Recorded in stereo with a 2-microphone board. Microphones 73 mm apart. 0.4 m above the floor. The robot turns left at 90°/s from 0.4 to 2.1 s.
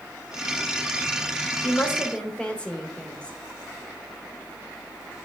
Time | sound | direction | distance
1.6 | a woman speaking | 60° left | 1.1 m